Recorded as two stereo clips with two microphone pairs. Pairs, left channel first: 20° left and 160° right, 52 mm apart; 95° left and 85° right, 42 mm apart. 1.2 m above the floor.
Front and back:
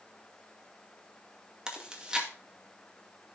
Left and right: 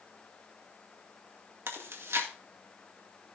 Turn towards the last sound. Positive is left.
turn(degrees=-85)